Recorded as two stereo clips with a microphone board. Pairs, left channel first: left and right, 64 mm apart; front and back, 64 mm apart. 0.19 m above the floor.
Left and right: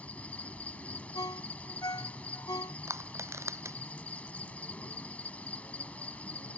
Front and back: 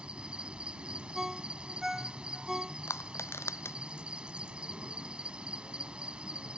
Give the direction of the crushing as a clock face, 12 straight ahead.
2 o'clock.